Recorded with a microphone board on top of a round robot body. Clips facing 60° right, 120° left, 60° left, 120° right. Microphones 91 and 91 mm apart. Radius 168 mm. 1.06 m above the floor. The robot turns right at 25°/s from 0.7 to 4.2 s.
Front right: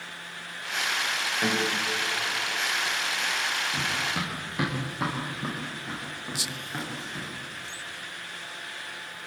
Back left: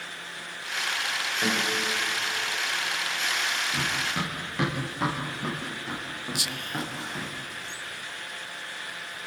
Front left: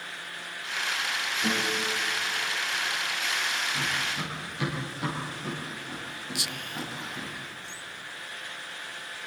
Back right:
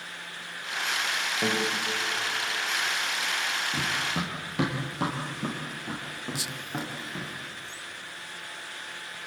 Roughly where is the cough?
I don't hear a cough.